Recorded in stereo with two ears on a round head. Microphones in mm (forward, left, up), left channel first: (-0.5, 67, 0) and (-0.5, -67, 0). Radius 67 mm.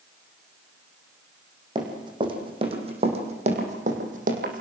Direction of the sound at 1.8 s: 30° right (ahead or behind).